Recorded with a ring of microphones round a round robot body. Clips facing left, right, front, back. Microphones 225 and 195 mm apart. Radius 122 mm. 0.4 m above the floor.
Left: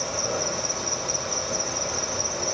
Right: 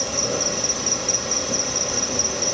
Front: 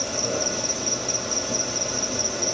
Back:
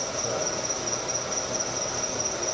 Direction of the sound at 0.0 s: 55° right.